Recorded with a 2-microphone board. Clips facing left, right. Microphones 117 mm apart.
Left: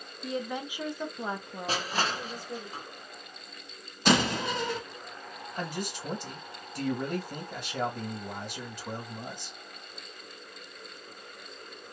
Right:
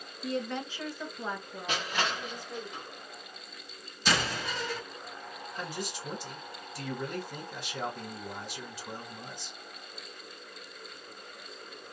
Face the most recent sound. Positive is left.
turn(degrees=55)  # may be behind; listen again after turning